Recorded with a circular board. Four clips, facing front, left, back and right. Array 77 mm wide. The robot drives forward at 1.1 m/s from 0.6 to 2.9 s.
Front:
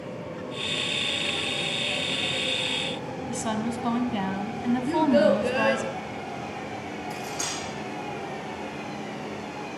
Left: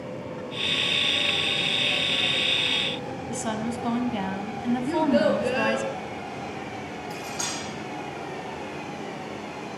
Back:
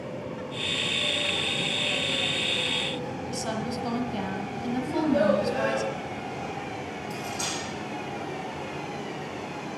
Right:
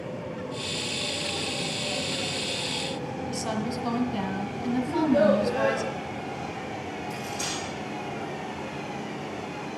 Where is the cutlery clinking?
105° left, 6 m.